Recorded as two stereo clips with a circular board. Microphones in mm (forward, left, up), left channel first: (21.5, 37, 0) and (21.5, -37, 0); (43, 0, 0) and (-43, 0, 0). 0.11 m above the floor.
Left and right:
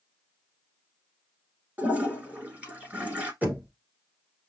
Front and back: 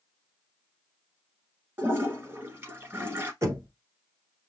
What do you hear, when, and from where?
1.8 s a toilet flushing: 140° right, 1.4 m
3.4 s knocking: 145° right, 1.6 m